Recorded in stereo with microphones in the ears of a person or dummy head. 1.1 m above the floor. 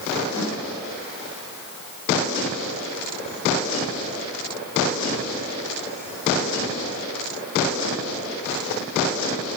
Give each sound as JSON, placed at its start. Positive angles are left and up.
{"t": 0.4, "sound": "a snare drum", "side_deg": 25, "distance_m": 6.5}